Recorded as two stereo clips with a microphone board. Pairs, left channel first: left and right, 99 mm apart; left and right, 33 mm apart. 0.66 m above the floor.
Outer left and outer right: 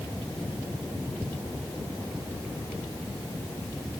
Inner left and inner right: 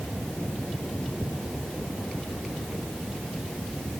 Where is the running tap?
I don't hear a running tap.